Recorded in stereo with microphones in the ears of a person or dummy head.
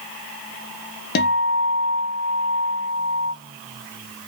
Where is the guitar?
60° left (ahead or behind), 0.5 m.